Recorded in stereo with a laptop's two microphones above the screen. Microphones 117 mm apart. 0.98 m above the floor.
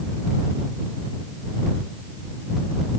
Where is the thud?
No thud in this recording.